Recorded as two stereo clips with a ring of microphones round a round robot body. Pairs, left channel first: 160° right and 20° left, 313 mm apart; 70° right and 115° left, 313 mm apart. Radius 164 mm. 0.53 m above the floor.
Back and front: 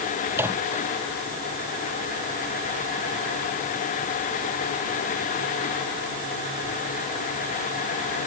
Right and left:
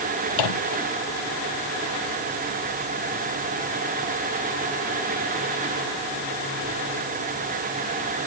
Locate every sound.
0.3 s a microwave: 60° right